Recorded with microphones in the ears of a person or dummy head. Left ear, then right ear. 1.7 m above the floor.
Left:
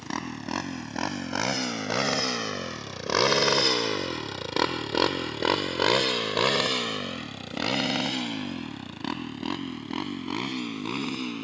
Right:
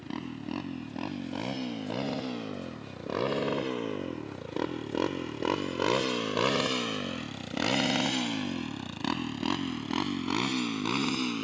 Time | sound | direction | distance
0.0 | a motorcycle | 55° left (ahead or behind) | ?